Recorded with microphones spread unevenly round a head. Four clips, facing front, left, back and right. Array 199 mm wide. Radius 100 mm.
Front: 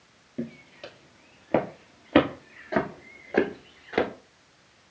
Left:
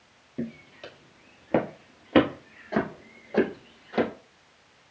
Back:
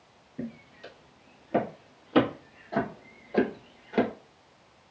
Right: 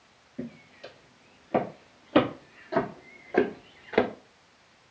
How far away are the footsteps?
About 2 m.